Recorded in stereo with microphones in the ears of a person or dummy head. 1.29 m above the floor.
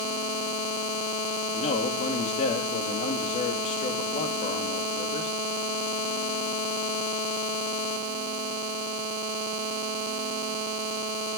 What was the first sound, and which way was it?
A man speaking, 35° left (ahead or behind).